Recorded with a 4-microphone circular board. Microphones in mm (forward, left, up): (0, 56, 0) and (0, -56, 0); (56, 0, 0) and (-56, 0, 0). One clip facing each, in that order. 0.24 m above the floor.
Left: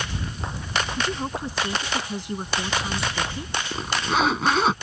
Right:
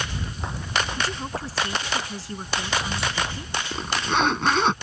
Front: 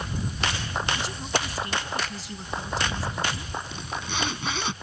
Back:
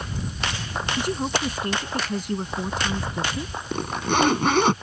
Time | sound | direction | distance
1.0 | a woman speaking | 160° left | ?
3.7 | a zipper | 175° left | ?